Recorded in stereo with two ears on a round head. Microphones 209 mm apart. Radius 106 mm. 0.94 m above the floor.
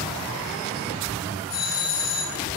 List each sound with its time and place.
1.5 s a doorbell: 85° left, 9.5 m